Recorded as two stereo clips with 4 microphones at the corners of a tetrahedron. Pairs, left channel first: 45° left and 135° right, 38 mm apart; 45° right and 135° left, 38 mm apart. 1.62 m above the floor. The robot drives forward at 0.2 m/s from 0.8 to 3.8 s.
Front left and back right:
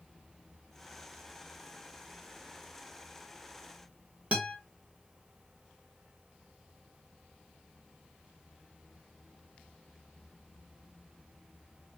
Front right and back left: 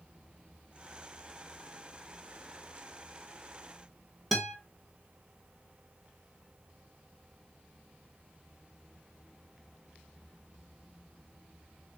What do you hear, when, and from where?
4.3 s a guitar: 130° right, 0.9 m